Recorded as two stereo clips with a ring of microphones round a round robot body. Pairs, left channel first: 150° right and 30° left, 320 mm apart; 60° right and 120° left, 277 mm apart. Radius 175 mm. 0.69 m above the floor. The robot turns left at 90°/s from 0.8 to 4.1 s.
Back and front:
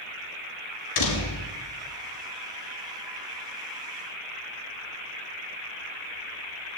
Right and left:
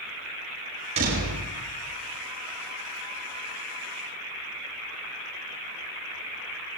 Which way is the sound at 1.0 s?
165° right.